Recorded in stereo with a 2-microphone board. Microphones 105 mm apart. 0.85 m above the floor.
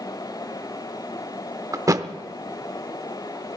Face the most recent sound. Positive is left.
turn(degrees=-35)  # may be behind; listen again after turning